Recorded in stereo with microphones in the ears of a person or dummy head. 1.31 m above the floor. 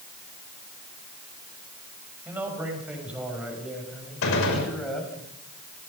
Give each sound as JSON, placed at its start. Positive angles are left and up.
{"t": 2.2, "sound": "a man speaking", "side_deg": -10, "distance_m": 6.5}
{"t": 4.2, "sound": "a gunshot", "side_deg": 75, "distance_m": 5.5}